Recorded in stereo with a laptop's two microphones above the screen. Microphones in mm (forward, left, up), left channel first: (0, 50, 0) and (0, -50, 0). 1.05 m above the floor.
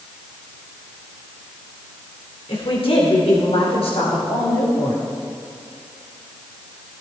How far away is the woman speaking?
About 4 m.